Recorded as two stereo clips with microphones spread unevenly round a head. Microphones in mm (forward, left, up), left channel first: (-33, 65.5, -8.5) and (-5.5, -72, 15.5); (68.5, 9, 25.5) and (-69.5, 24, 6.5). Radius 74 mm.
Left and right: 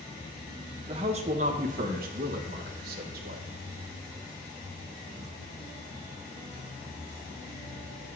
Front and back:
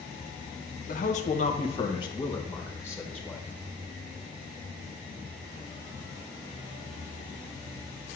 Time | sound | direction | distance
0.9 | a man speaking | 20° right | 1.1 m